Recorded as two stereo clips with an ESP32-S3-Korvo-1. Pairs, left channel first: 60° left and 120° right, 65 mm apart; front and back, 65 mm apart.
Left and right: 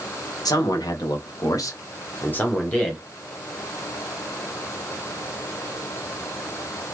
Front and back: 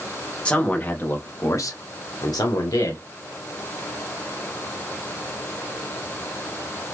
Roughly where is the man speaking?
Left.